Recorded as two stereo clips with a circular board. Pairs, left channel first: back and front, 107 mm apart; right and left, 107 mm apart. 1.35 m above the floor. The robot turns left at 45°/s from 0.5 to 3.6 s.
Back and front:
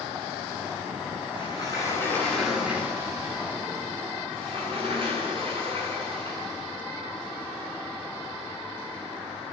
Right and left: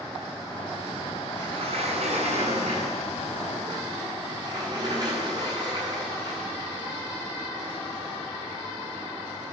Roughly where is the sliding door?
Behind left.